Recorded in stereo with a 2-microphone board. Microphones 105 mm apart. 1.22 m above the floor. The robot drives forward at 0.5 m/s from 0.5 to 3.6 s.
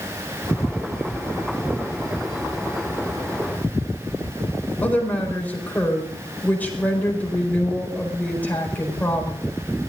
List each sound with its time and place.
4.8 s a woman speaking: 15° left (ahead or behind), 4.5 m